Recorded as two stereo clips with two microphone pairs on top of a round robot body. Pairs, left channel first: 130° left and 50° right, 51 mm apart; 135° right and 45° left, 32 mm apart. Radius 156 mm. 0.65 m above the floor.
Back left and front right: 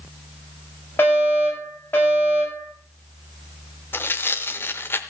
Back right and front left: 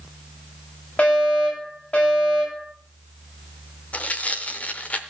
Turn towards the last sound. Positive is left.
turn(degrees=180)